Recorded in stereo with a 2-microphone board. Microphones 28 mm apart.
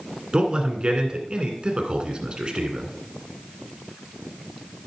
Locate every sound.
0.3 s a man speaking: 35° right (ahead or behind), 1.7 m